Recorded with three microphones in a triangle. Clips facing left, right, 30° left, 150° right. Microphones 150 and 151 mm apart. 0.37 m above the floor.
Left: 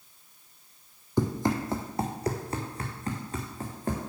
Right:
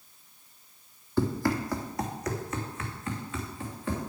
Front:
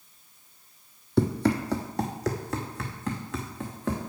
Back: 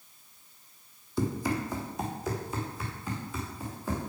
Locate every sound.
1.2 s running footsteps: 15° left, 1.0 m; by 4.1 s 40° left, 2.5 m